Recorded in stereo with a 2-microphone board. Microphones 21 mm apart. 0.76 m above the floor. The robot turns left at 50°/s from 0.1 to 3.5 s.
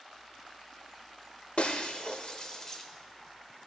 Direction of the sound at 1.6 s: 70° left (ahead or behind).